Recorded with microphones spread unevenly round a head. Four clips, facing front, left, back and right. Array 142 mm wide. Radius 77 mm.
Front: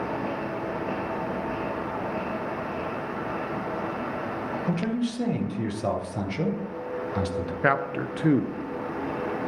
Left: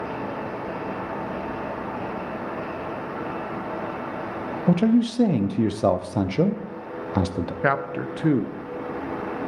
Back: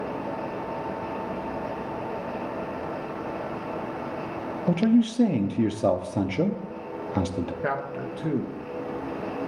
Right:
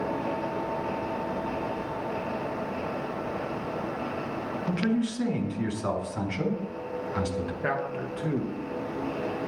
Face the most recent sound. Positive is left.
turn(degrees=45)